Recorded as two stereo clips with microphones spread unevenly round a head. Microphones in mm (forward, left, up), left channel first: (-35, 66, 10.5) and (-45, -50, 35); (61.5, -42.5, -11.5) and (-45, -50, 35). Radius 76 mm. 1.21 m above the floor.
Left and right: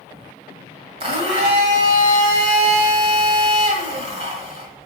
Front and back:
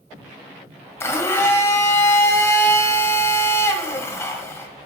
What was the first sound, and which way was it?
A blender, 75° right.